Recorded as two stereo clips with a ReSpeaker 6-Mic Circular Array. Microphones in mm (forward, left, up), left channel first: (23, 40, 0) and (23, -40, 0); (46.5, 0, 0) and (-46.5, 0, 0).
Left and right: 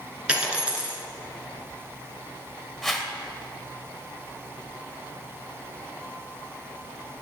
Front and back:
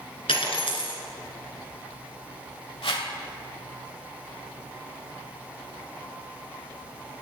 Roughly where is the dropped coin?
Ahead.